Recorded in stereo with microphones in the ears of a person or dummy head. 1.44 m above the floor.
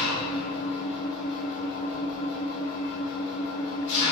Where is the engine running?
70° left (ahead or behind), 2.0 m.